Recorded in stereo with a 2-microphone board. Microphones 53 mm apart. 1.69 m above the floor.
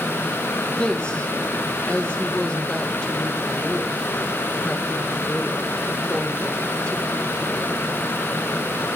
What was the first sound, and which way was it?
A woman speaking, 20° left (ahead or behind).